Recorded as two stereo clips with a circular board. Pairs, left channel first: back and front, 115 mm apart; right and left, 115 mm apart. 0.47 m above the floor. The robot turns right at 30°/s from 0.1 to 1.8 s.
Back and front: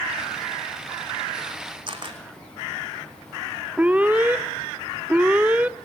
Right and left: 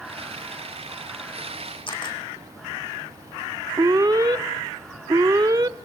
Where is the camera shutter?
45° right, 4 m.